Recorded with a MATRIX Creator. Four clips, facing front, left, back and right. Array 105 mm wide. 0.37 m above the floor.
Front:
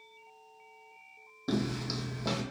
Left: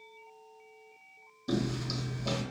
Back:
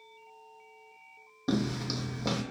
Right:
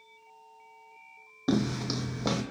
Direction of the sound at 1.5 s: 100° right.